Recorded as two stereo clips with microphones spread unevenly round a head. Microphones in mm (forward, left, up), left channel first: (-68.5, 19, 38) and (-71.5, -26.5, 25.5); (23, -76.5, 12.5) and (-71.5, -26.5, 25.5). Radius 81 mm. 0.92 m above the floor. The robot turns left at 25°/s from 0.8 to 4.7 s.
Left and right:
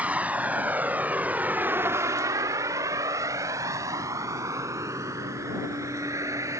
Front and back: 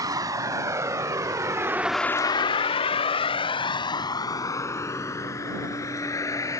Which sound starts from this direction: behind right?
A vehicle, at 0.0 s.